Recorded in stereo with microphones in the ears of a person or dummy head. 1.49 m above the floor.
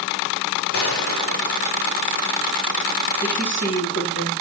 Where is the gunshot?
60° left (ahead or behind), 2 m.